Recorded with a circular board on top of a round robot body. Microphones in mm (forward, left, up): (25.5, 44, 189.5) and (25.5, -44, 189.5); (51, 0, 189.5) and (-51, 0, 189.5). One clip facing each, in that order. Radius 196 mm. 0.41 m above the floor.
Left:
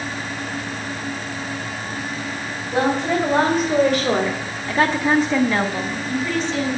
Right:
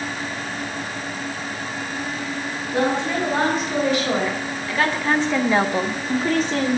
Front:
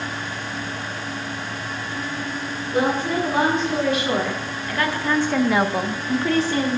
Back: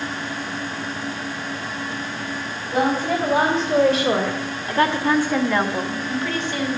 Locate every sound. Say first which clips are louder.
2.7 s a woman speaking: left 2 dB, back 1 dB; 130° left, 4.5 m; by 6.8 s 50° right, 2.5 m